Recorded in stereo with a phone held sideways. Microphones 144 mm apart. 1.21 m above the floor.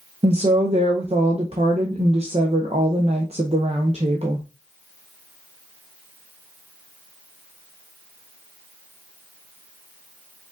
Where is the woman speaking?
45° right (ahead or behind), 0.6 m.